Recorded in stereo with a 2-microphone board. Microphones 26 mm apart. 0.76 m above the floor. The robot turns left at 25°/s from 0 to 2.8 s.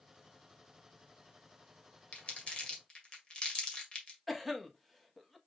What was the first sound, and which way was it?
Crumpling, 55° left (ahead or behind).